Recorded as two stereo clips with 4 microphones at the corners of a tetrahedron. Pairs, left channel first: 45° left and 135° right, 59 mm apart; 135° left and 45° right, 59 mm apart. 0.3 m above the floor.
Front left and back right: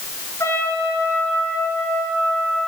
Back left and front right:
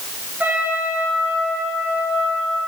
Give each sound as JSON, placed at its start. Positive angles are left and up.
{"t": 0.4, "sound": "a trumpet", "azimuth_deg": 15, "distance_m": 5.5}